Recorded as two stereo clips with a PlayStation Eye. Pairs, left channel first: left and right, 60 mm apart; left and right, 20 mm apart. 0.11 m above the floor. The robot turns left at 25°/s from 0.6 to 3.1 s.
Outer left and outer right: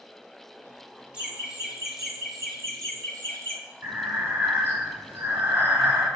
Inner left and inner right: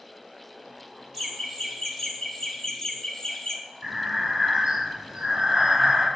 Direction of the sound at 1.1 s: 150° right.